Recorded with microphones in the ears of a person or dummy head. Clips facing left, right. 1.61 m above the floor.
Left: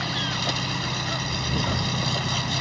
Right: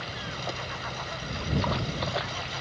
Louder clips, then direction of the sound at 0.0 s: Left 6 dB; 80° left.